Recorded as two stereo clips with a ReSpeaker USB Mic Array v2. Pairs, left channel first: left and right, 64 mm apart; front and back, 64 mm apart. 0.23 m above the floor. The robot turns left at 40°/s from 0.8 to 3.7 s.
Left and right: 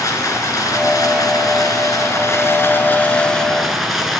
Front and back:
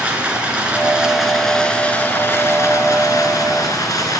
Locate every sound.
0.0 s running water: 115° left, 3 m; by 4.2 s 5° right, 3 m